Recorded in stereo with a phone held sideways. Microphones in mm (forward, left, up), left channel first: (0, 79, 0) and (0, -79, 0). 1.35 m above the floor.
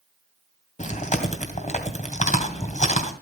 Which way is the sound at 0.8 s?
50° left (ahead or behind).